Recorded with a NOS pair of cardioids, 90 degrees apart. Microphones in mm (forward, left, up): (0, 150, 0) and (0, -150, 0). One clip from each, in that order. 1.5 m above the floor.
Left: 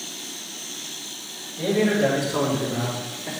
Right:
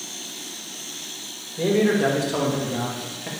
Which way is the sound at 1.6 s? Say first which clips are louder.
Right 1 dB; 30° right.